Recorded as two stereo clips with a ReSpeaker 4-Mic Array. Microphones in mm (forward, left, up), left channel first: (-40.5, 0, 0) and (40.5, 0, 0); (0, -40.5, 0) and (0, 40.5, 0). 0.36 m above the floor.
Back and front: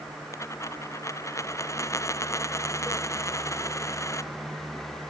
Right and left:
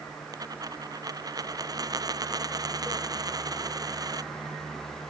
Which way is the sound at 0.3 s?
130° left.